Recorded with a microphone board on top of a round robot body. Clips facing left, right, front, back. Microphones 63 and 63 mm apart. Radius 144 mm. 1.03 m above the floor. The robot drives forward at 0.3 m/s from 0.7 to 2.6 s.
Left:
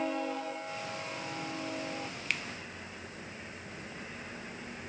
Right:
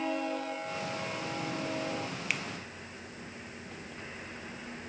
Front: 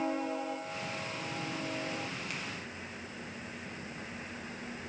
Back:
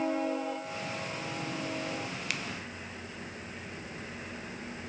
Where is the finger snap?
175° right, 0.5 m.